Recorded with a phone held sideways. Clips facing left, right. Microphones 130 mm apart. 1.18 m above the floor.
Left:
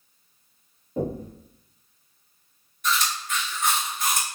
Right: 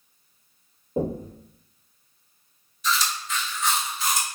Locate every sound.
1.0 s knocking: 25° right (ahead or behind), 0.9 m
2.8 s chewing: 55° left (ahead or behind), 0.9 m